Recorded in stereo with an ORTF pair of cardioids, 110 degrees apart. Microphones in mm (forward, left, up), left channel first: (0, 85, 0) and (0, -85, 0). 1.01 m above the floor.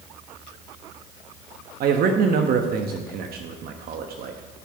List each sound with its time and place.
1.8 s a man speaking: 60° right, 1.1 m